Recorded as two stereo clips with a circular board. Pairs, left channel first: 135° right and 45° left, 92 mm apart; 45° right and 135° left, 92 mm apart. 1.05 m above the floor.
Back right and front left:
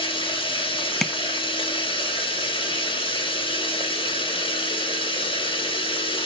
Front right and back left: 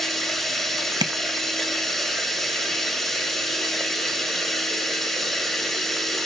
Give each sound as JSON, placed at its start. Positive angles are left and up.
{"t": 0.0, "sound": "running water", "azimuth_deg": -130, "distance_m": 1.8}
{"t": 1.0, "sound": "tapping", "azimuth_deg": 145, "distance_m": 0.7}